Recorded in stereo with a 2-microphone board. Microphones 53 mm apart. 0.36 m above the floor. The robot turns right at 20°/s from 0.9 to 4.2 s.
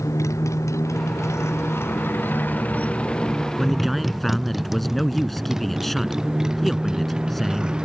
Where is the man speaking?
10° right (ahead or behind); by 7.8 s 5° left (ahead or behind).